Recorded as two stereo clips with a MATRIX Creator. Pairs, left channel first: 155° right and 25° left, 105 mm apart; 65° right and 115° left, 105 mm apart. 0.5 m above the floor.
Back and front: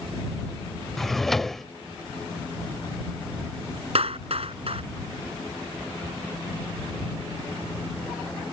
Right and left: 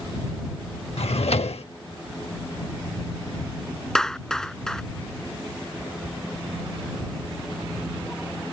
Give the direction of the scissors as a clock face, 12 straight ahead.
I don't hear scissors.